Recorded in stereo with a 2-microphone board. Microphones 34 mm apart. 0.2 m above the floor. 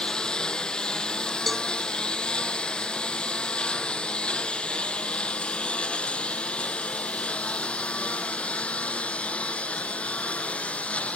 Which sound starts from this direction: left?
A lawn mower, at 0.0 s.